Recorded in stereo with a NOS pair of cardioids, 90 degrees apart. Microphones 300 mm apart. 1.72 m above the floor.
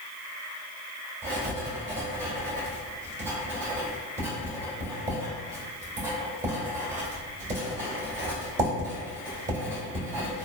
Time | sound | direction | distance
1.2 | writing | 35° right | 1.4 m